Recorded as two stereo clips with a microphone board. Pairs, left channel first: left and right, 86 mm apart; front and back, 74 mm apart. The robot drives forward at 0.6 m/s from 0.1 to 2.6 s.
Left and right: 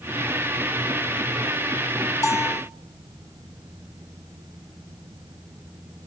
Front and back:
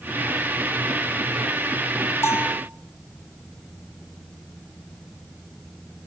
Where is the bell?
45° left, 1.4 m; by 2.6 s 55° left, 1.3 m.